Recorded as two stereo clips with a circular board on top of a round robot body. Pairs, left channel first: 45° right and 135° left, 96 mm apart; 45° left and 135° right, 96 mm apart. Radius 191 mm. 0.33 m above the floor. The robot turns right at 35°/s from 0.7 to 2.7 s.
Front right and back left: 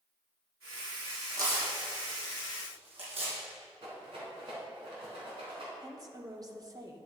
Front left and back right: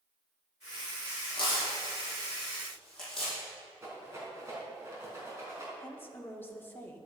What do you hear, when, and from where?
1.3 s tearing paper: 80° left, 4.5 m; by 3.4 s 130° left, 4.5 m
3.8 s a rattle: 165° left, 4 m
5.8 s a woman speaking: 105° left, 2.0 m